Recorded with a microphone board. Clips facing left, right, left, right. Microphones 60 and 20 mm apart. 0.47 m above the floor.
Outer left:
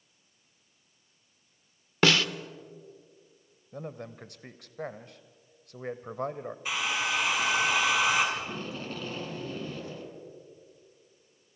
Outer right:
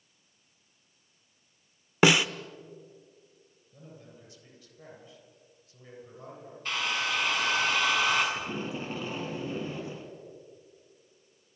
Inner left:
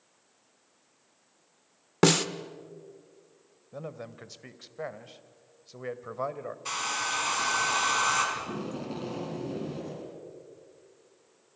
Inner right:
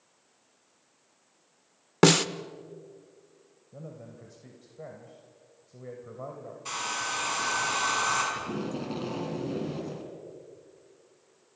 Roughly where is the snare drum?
Centre.